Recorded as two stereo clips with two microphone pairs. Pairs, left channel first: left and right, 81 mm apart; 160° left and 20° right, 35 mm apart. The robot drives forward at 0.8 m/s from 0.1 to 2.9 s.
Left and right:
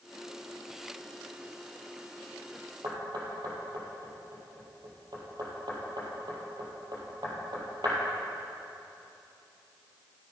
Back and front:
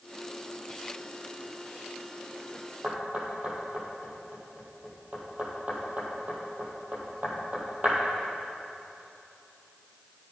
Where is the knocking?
65° right, 2.5 m.